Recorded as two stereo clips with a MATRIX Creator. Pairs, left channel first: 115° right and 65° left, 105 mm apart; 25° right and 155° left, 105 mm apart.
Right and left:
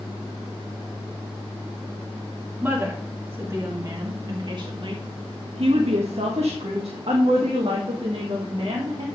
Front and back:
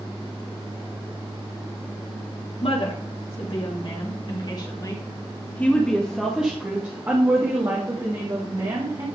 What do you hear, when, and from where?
2.6 s a woman speaking: 5° right, 3 m; by 9.1 s 115° left, 3.5 m